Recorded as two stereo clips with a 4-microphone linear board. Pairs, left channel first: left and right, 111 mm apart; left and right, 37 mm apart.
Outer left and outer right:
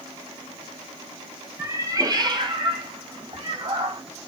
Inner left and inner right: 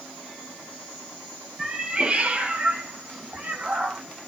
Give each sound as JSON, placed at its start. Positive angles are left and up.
{"t": 1.6, "sound": "a cat meowing", "side_deg": -20, "distance_m": 0.7}